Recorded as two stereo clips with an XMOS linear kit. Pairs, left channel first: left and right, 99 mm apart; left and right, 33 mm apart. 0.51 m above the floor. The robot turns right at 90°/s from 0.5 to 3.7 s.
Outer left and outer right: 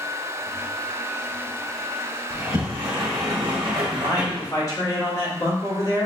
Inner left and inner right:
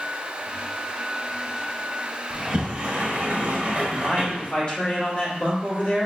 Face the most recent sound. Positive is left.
turn(degrees=35)  # may be behind; listen again after turning